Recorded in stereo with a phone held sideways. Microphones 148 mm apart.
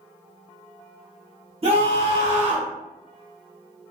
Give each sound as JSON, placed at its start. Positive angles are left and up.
{"t": 1.6, "sound": "a scream", "side_deg": -45, "distance_m": 1.2}